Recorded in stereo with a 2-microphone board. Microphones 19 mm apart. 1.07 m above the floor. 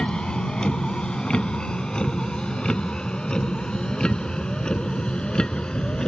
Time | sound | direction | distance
0.0 | a vehicle | 45° left (ahead or behind) | ?